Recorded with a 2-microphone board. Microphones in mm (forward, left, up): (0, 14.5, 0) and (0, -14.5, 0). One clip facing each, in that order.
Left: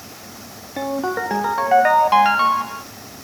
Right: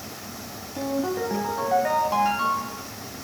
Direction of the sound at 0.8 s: 60° left (ahead or behind).